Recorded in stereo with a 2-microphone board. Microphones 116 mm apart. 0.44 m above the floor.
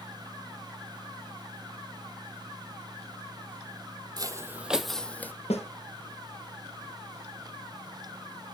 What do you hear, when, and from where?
4.2 s footsteps: 35° right (ahead or behind), 0.6 m; by 5.3 s 15° left (ahead or behind), 0.8 m
5.5 s a snare drum: 65° left (ahead or behind), 2.5 m